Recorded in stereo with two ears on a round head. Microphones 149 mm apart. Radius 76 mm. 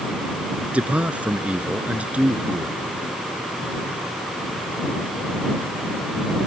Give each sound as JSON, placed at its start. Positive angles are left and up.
{"t": 0.7, "sound": "a man speaking", "side_deg": -10}